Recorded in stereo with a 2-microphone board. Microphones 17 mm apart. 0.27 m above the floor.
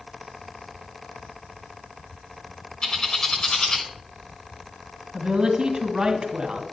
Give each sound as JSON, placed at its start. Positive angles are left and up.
{"t": 2.8, "sound": "a bird", "side_deg": 60, "distance_m": 1.8}
{"t": 5.1, "sound": "a woman speaking", "side_deg": -50, "distance_m": 1.9}